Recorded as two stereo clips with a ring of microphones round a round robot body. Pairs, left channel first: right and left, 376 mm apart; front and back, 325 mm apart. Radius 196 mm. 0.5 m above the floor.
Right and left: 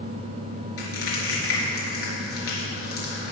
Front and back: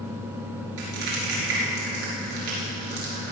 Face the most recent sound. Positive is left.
turn(degrees=-145)